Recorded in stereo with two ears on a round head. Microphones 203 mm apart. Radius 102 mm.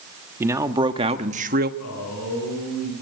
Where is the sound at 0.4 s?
10° right (ahead or behind), 1.2 m; by 1.7 s 40° right (ahead or behind), 1.0 m.